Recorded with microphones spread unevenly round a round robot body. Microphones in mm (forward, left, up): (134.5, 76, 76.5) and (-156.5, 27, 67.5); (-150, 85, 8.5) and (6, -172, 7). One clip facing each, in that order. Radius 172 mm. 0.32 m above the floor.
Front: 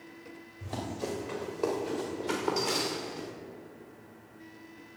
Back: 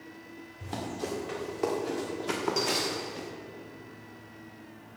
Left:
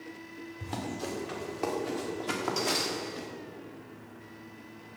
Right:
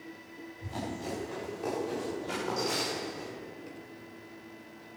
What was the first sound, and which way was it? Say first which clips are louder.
Running footsteps: even, left 1 dB; 125° left.